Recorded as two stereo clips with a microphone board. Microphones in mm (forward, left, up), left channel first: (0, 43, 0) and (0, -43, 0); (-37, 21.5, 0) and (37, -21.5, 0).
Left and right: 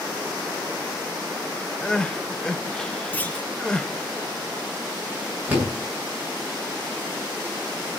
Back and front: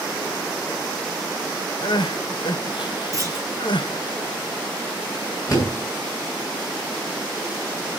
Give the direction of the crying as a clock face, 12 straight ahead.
6 o'clock.